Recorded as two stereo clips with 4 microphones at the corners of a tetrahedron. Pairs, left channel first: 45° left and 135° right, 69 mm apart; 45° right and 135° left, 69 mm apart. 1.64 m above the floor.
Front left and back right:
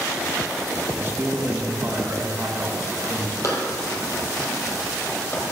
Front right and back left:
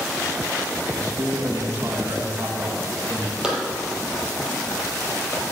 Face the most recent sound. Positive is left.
turn(degrees=-5)